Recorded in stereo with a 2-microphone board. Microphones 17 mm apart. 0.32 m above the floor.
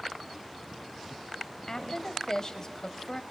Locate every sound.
1.7 s a woman speaking: 40° left (ahead or behind), 1.3 m